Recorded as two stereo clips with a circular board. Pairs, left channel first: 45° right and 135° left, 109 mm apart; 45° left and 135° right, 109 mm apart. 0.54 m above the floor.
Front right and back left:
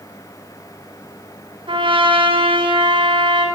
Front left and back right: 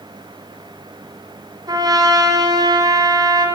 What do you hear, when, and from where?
1.7 s a trumpet: 175° left, 3.5 m